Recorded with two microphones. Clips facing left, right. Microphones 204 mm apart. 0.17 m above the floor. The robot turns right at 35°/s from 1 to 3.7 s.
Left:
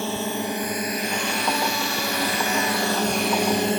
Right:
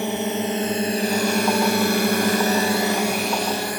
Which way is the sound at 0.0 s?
20° right (ahead or behind).